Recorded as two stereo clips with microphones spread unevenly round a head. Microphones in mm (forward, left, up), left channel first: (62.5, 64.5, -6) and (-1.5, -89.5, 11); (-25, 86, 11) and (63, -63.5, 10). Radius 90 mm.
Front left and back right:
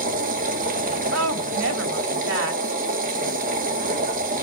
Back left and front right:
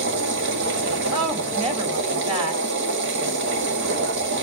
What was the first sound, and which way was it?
A machine running, 75° right.